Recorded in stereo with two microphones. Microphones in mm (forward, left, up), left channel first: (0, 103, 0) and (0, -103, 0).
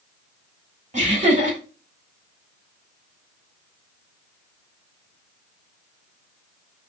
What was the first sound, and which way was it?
Laughter, 35° right (ahead or behind).